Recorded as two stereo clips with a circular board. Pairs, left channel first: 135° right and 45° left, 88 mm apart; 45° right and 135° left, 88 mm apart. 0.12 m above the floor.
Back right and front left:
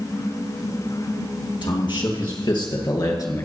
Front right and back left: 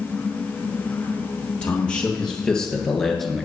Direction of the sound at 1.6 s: 120° right.